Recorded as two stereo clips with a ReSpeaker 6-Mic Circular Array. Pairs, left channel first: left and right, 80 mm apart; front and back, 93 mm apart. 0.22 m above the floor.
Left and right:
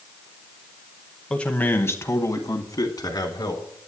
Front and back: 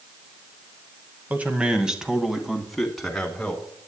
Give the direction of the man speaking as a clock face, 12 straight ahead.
7 o'clock.